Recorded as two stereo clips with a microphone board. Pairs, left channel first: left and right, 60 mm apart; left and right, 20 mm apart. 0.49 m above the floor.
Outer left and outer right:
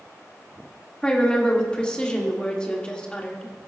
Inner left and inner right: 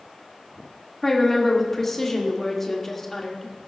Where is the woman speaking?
15° left (ahead or behind), 1.3 m.